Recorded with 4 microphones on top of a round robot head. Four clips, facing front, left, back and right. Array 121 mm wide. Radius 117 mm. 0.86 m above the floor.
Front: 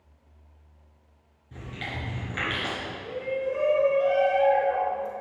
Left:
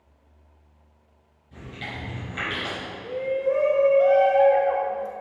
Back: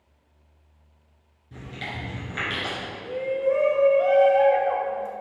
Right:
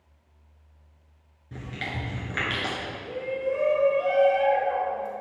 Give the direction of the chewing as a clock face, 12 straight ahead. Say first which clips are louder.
Right 2 dB, back 1 dB; 3 o'clock.